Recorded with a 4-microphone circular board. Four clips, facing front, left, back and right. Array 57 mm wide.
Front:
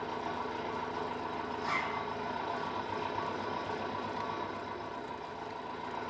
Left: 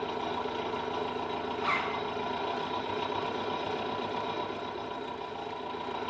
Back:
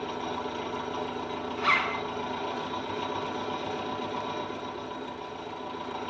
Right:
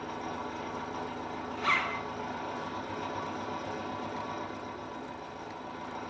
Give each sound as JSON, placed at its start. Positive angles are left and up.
{"t": 0.0, "sound": "an engine running", "azimuth_deg": 115, "distance_m": 5.0}
{"t": 1.6, "sound": "a zipper", "azimuth_deg": -170, "distance_m": 1.5}